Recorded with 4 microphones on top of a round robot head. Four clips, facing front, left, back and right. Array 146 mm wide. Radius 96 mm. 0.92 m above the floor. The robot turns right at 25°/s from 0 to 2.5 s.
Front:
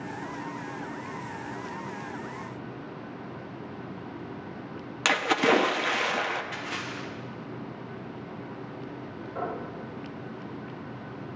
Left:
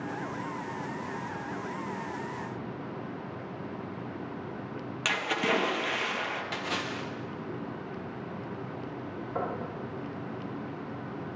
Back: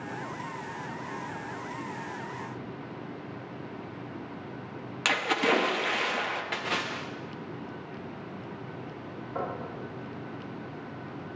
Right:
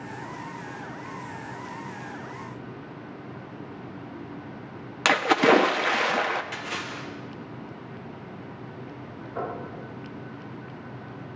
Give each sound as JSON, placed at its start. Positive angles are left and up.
{"t": 5.0, "sound": "a splash", "azimuth_deg": -85, "distance_m": 0.6}
{"t": 6.5, "sound": "a splash", "azimuth_deg": 160, "distance_m": 1.1}
{"t": 9.3, "sound": "knocking", "azimuth_deg": 115, "distance_m": 5.0}